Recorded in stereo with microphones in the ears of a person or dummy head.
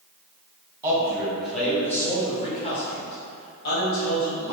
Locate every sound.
0.8 s a man speaking: 20° right (ahead or behind), 1.5 m; by 4.5 s 65° left (ahead or behind), 2.5 m